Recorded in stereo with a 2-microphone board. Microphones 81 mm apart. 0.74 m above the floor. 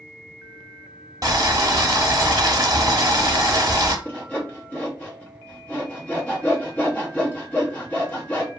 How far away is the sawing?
About 0.9 m.